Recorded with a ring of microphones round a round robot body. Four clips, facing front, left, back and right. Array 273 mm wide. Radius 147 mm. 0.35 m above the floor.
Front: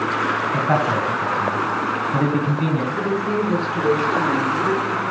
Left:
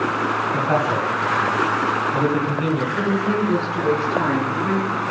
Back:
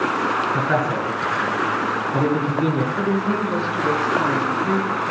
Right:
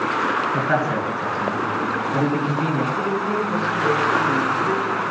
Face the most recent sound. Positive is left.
turn(degrees=30)